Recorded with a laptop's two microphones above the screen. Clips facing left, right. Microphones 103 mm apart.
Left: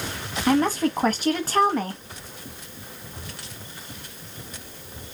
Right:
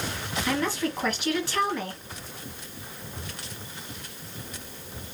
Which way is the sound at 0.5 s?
40° left (ahead or behind).